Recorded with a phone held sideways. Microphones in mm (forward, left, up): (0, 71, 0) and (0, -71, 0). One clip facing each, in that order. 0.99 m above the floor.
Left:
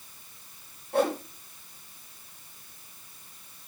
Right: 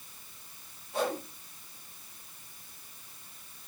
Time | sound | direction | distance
0.9 | a whoosh | 55° left (ahead or behind) | 2 m